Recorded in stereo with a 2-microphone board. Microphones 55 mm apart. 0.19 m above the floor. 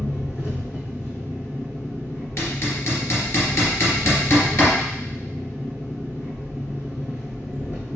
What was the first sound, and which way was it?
An engine running, 50° left (ahead or behind).